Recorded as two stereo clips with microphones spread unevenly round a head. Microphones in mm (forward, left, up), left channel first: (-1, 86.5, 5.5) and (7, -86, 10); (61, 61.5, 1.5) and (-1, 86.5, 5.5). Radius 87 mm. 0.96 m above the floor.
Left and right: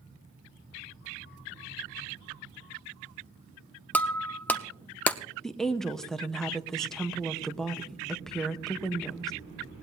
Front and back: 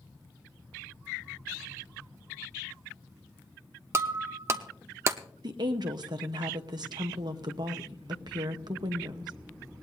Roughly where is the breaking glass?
Behind.